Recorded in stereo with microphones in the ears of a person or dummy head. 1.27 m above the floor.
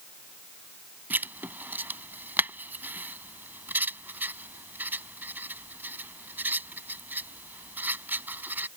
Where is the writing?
10° right (ahead or behind).